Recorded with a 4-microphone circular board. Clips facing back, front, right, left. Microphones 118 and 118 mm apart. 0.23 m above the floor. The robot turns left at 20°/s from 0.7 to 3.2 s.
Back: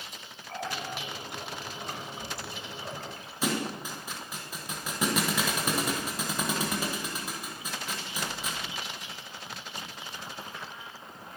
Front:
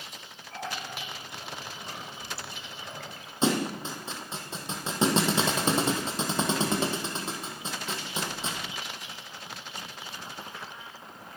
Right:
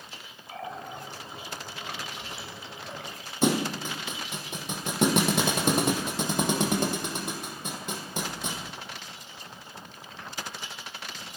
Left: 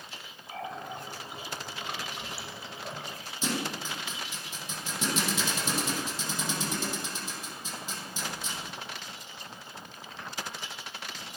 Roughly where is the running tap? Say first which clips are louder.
Back 2 dB, even; behind.